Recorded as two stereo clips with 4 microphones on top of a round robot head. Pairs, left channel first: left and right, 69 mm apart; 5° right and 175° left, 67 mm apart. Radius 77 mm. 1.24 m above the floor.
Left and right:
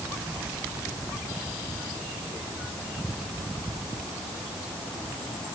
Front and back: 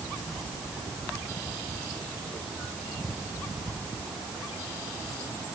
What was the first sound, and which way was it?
Only background noise.